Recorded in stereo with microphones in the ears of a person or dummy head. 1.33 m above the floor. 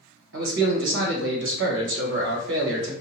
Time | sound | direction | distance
0.3 | a man speaking | 65° right (ahead or behind) | 1.5 m